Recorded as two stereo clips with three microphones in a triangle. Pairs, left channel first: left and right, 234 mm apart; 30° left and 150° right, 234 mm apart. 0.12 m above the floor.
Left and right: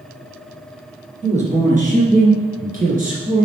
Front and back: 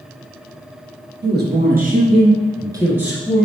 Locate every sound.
1.2 s a man speaking: 140° right, 2.5 m; by 3.5 s 55° right, 2 m